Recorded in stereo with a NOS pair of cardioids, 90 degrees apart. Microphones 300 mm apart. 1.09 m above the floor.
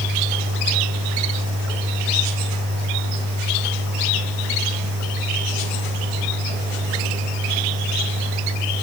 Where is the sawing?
No sawing in this recording.